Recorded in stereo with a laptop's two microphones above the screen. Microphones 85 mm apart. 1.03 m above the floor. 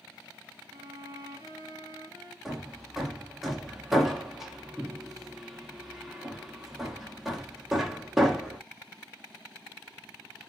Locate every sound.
0.7 s a violin: 30° right (ahead or behind), 1.8 m
2.5 s hammering: 5° right (ahead or behind), 1.2 m